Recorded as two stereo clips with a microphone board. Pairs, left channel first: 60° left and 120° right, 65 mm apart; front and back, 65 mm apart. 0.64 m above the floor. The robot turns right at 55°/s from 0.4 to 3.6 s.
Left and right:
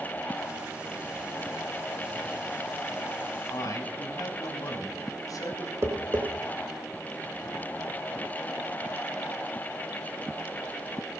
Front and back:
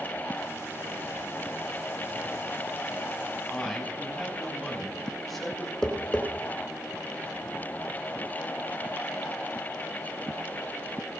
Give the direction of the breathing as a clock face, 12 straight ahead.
I don't hear breathing.